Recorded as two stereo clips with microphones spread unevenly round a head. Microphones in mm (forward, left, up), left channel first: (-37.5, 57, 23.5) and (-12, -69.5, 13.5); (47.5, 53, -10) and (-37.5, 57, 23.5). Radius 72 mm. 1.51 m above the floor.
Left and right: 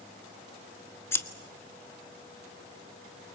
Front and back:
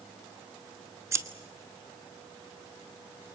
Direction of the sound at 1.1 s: 165° left.